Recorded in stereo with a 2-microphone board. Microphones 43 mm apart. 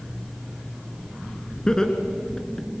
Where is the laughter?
15° left (ahead or behind), 2.5 m.